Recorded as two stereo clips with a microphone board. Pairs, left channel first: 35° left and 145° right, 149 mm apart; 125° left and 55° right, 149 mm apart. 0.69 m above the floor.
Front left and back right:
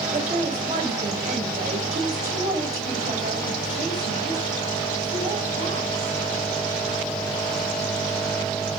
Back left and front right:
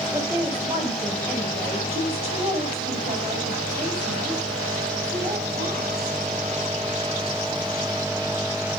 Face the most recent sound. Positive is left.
turn(degrees=-100)